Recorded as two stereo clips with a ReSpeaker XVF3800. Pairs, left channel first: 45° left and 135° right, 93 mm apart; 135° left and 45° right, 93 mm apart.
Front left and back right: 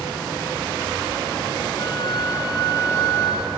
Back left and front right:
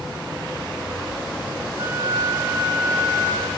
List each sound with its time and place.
1.8 s a flute: 10° left, 2.5 m